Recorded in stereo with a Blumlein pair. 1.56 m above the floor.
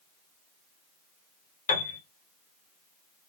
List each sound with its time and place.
1.7 s a piano: 60° left, 1.0 m